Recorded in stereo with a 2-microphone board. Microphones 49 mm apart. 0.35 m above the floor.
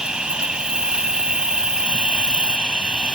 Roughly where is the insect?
Centre.